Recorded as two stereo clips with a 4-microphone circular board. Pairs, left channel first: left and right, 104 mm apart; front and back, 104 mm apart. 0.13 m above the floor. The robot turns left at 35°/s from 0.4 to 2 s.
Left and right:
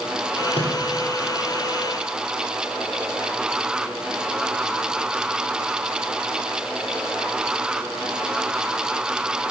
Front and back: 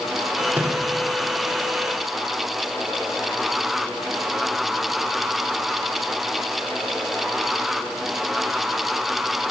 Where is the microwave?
110° left, 4.5 m; by 0.8 s 100° left, 4.5 m.